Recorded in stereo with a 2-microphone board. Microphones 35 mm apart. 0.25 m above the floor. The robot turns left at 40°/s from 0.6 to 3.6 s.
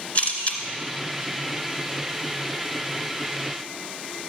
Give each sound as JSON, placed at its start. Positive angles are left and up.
{"t": 0.1, "sound": "a camera shutter", "side_deg": 40, "distance_m": 1.6}